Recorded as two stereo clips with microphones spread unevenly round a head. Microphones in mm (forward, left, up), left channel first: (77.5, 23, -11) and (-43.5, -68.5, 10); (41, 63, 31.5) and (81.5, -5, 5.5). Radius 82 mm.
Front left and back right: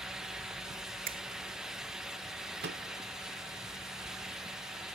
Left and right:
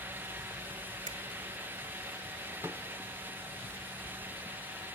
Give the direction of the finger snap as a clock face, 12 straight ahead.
4 o'clock.